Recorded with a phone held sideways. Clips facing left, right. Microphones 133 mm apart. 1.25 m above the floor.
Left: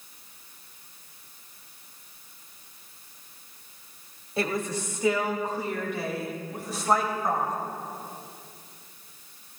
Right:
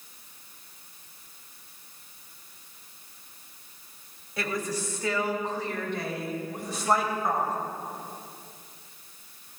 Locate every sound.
4.4 s a woman speaking: 30° left (ahead or behind), 2.5 m; by 7.5 s 5° right (ahead or behind), 4.5 m